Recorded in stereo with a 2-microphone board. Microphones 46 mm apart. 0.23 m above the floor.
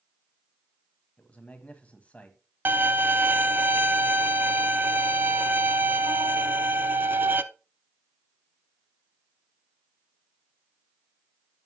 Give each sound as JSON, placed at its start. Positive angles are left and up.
{"t": 1.2, "sound": "a man speaking", "side_deg": 30, "distance_m": 1.5}
{"t": 2.6, "sound": "a violin", "side_deg": -50, "distance_m": 0.5}